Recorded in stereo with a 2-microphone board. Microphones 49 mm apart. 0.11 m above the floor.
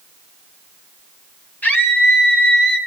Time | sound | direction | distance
1.6 | a scream | 35° left (ahead or behind) | 3 m